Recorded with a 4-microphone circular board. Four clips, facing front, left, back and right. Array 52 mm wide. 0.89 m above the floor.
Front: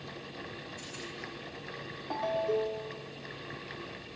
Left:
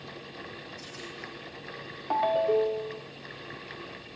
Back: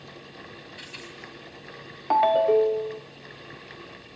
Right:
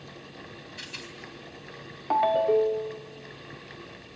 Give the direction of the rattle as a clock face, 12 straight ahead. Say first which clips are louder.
Right 2 dB, back 2 dB; 4 o'clock.